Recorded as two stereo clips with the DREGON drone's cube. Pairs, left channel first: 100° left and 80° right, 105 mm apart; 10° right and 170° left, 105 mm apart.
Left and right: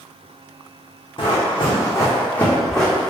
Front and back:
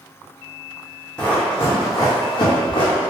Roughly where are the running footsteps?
Ahead left.